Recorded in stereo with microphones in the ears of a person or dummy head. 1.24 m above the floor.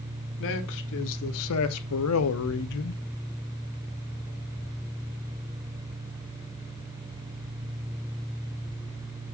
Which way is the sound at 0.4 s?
65° left (ahead or behind).